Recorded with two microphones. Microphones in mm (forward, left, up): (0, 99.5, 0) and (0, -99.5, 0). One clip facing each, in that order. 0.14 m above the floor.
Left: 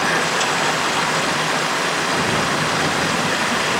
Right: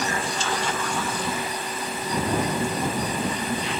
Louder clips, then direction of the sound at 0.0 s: Left 6 dB; 85° left.